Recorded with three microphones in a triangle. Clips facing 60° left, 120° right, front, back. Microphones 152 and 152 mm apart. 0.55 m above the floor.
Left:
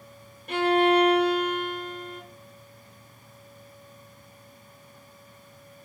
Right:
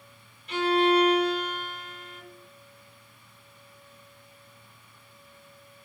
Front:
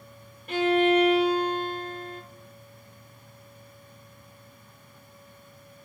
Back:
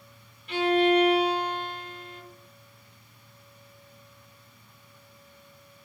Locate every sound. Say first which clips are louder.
0.5 s a violin: left 2 dB, front 1 dB; 35° left, 1.2 m